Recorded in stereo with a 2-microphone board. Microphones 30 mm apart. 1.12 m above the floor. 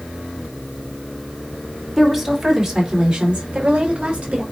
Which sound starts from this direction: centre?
A woman speaking, at 2.0 s.